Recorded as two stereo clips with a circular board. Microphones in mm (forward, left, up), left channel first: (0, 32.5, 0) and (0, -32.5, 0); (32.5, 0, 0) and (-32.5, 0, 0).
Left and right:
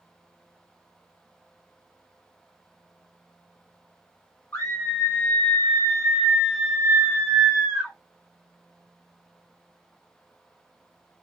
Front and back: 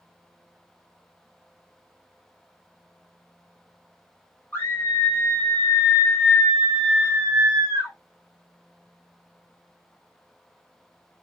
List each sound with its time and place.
4.5 s a scream: 35° left, 1.3 m; by 8.0 s 140° right, 1.3 m